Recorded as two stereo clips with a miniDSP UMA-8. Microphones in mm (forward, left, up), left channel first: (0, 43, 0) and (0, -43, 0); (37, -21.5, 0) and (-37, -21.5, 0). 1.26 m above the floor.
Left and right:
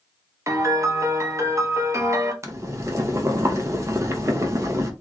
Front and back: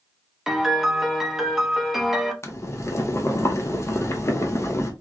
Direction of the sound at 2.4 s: 45° right.